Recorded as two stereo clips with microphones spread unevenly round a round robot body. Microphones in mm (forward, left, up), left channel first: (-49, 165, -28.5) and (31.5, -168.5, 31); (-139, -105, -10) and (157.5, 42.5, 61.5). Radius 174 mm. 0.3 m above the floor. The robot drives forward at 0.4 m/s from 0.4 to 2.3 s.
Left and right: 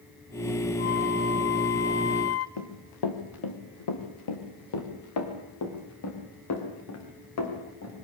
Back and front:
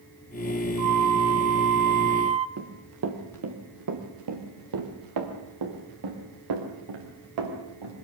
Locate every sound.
0.8 s a flute: 55° left, 1.0 m; by 2.5 s 105° left, 0.9 m
2.6 s running footsteps: 80° left, 3.5 m; by 8.1 s 55° left, 7.5 m